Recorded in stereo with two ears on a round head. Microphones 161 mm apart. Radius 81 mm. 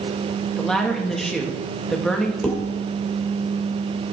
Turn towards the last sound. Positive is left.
turn(degrees=5)  # may be behind; listen again after turning